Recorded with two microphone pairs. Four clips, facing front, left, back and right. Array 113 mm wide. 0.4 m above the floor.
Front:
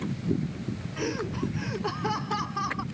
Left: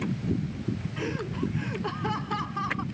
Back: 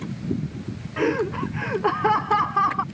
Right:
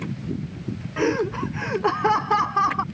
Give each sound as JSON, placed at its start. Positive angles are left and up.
{"t": 1.0, "sound": "laughter", "azimuth_deg": -135}